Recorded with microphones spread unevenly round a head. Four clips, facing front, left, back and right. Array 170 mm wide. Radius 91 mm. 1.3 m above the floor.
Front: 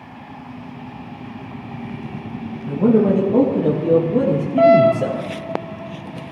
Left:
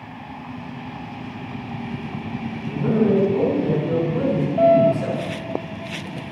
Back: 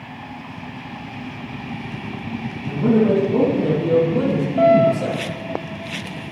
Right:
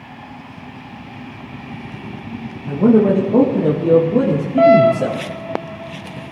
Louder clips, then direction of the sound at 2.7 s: Right 6 dB, front 1 dB; 65° right.